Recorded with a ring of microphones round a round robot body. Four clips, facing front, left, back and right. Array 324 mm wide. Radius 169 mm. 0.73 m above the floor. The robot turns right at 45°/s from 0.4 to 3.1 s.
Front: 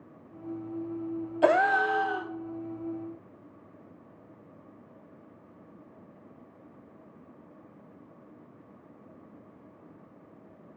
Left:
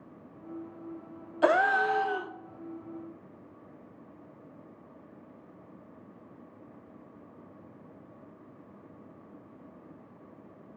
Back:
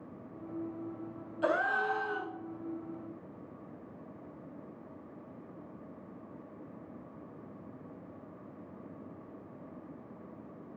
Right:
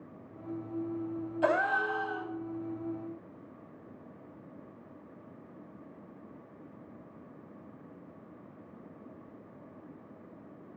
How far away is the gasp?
About 0.6 m.